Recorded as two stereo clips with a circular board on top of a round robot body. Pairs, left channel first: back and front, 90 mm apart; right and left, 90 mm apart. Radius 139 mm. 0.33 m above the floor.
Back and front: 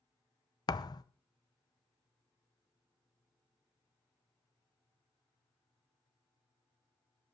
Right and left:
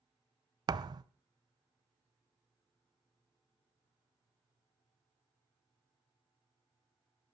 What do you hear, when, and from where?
0.7 s a thud: 135° left, 0.6 m